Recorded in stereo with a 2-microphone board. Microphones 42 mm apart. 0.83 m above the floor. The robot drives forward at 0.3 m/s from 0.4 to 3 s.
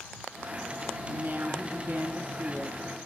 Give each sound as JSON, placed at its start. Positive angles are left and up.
{"t": 1.1, "sound": "a woman speaking", "side_deg": -50, "distance_m": 1.6}